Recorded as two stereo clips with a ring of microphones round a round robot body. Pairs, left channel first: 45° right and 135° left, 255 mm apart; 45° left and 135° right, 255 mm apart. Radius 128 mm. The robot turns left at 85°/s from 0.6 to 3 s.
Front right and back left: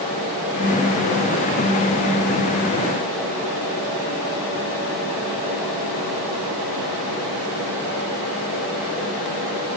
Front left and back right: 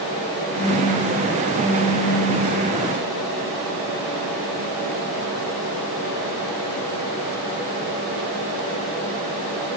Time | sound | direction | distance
0.5 | a phone buzzing | 85° right | 1.5 m